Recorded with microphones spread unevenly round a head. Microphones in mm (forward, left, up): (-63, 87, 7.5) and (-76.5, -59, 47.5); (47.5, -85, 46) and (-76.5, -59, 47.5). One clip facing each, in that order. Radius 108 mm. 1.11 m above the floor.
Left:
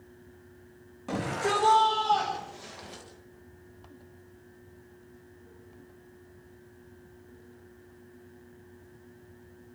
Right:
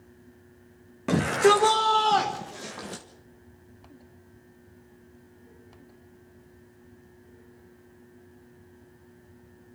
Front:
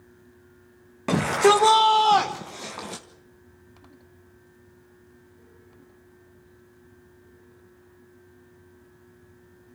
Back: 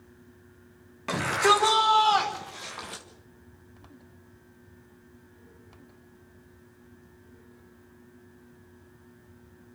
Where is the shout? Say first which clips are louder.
Right 9 dB, front 6 dB; 50° right, 2 m.